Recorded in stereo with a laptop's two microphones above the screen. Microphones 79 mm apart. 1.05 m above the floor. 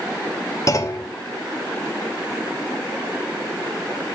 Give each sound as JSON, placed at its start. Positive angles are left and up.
{"t": 0.7, "sound": "a clunk", "side_deg": 40, "distance_m": 1.0}